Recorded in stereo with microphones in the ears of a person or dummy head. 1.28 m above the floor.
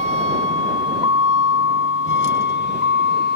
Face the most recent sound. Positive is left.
turn(degrees=55)  # may be behind; listen again after turning